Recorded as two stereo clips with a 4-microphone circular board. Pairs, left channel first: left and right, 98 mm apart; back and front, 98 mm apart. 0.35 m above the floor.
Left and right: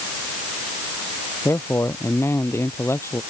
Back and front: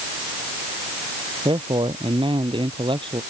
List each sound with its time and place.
1.4 s a man speaking: 30° left